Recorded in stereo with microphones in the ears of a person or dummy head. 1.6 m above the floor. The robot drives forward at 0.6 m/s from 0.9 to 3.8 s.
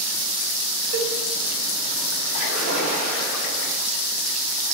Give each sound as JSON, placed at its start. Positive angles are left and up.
{"t": 0.9, "sound": "a cowbell", "side_deg": -55, "distance_m": 3.0}
{"t": 2.3, "sound": "a splash", "side_deg": -85, "distance_m": 6.0}